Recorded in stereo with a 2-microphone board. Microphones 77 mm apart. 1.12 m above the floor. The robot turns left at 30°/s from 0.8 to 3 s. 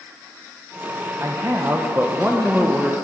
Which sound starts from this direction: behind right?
A man speaking, at 1.2 s.